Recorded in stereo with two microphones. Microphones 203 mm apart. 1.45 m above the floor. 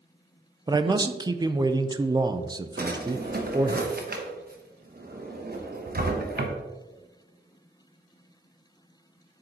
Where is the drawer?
50° right (ahead or behind), 1.0 m.